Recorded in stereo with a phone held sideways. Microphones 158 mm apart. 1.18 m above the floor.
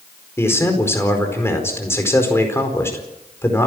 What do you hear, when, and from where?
0.4 s a man speaking: 15° left (ahead or behind), 4.5 m